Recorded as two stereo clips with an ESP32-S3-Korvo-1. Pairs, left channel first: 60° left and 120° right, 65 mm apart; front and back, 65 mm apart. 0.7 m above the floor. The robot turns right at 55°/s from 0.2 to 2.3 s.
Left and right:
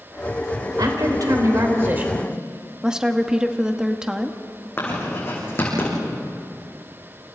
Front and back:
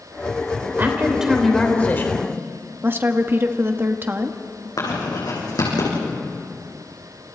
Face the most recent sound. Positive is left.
turn(degrees=5)